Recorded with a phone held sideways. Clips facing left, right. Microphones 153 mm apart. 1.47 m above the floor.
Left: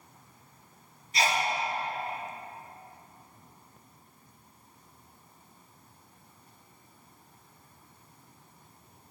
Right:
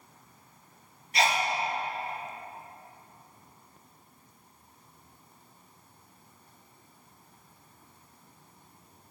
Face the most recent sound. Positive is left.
turn(degrees=-75)  # may be behind; listen again after turning